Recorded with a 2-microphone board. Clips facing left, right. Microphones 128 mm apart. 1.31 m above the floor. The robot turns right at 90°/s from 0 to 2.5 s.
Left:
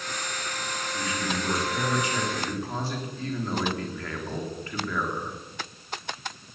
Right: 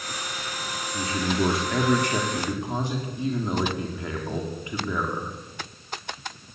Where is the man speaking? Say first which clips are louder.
Right 6 dB; 160° right, 4 m; by 5.3 s 20° right, 4 m.